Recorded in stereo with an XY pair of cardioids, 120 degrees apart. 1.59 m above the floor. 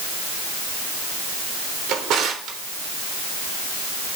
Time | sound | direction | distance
1.9 | a drawer | 65° right | 3 m